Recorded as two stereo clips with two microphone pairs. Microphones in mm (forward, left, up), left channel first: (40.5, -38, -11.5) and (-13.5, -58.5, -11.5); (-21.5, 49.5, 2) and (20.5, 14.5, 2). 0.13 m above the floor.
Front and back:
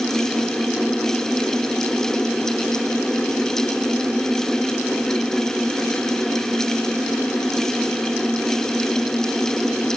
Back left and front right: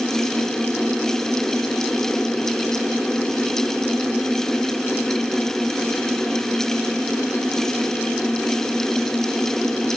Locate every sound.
Only background noise.